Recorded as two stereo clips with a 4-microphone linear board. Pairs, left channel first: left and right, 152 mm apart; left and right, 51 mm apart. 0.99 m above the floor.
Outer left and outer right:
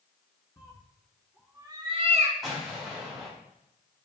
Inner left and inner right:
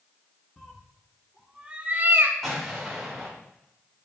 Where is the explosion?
Centre (ahead or behind), 4 m.